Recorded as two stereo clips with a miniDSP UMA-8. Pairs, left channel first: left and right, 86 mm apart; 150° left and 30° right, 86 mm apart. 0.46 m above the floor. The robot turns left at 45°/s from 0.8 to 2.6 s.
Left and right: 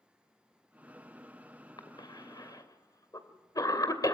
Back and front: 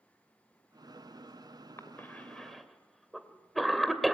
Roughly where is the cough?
Left.